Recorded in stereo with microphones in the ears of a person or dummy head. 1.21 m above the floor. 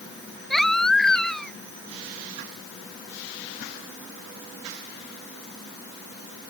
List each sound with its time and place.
0.5 s a baby crying: 5° left (ahead or behind)